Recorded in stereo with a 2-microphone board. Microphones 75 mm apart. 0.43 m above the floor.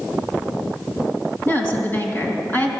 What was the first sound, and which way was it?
A woman speaking, 30° left (ahead or behind).